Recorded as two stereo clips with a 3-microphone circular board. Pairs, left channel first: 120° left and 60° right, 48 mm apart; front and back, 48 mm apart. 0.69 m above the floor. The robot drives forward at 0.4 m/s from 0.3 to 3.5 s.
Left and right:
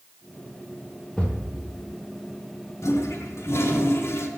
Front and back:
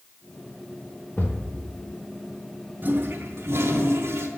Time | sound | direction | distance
1.2 | a thud | 55° left | 1.2 m
2.8 | a toilet flushing | 130° left | 0.5 m